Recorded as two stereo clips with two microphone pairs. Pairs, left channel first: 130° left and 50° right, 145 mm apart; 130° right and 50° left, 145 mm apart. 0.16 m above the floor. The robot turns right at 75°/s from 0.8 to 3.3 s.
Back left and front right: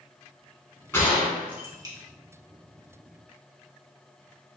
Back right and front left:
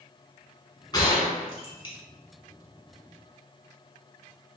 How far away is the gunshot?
About 0.9 m.